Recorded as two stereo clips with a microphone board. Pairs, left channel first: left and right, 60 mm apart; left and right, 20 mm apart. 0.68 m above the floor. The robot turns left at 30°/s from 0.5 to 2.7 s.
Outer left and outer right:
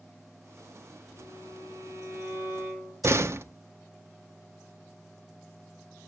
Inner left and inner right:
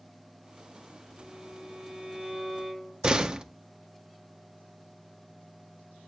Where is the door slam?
45° right (ahead or behind), 0.9 m.